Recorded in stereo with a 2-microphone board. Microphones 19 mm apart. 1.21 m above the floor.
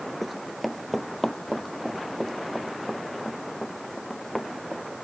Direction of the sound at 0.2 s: 5° right (ahead or behind).